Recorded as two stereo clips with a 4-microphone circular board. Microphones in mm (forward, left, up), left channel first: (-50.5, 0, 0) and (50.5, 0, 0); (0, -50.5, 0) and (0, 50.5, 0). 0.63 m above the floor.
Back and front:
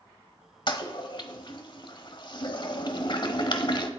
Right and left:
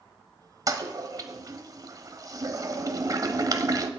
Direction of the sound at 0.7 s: 145° left.